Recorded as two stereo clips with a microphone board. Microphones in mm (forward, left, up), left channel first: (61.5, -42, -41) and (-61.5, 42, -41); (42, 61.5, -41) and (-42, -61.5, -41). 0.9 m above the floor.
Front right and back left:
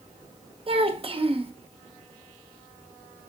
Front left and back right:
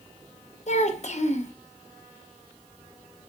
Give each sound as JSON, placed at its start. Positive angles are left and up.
{"t": 0.7, "sound": "a child speaking", "azimuth_deg": 95, "distance_m": 0.6}